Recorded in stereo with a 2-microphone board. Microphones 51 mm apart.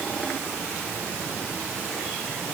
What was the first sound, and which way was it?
Only background noise.